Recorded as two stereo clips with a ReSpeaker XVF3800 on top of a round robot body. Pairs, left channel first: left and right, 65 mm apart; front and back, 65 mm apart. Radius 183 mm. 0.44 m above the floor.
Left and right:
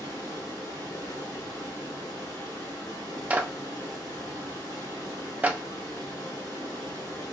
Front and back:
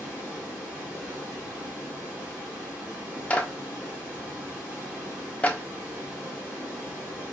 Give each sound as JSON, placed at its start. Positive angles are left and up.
{"t": 0.0, "sound": "running water", "azimuth_deg": 110, "distance_m": 1.7}
{"t": 3.3, "sound": "a clap", "azimuth_deg": -50, "distance_m": 0.8}